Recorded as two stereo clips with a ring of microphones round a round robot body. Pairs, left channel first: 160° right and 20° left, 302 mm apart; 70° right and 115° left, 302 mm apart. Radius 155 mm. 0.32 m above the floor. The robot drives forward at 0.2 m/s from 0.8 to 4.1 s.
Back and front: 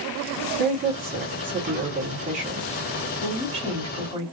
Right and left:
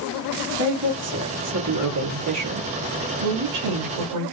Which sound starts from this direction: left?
A woman speaking, at 0.6 s.